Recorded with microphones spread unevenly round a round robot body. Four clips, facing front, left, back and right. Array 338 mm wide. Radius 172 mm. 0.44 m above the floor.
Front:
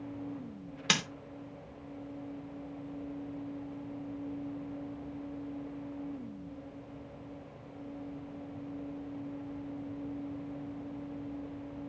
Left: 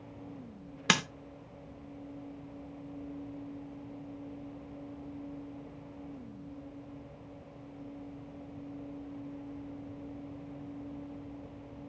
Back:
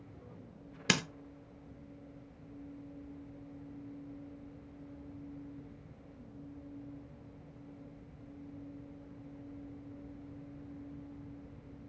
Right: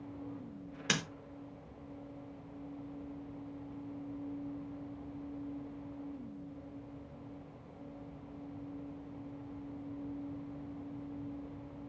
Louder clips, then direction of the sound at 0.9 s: Left 7 dB, back 1 dB; 140° left.